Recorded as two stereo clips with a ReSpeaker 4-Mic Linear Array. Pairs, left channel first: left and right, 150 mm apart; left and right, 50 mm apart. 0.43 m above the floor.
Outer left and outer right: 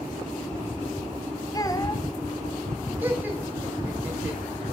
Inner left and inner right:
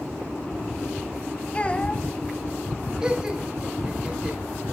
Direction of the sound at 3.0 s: 10° right (ahead or behind).